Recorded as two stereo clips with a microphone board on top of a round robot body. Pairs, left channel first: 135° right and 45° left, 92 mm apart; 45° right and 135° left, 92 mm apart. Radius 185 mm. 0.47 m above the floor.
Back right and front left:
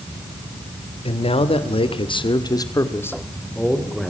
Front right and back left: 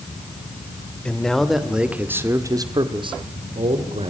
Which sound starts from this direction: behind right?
A man speaking, at 1.1 s.